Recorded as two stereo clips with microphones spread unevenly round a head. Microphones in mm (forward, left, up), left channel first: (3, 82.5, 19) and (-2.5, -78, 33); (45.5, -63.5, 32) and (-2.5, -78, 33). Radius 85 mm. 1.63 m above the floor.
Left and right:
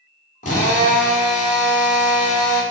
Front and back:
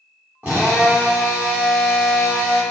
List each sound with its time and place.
0.4 s a drill: 130° left, 1.6 m